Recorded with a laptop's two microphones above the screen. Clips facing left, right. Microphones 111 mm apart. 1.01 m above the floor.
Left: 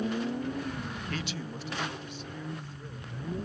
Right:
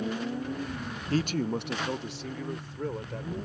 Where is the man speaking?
30° right (ahead or behind); by 3.4 s 85° right.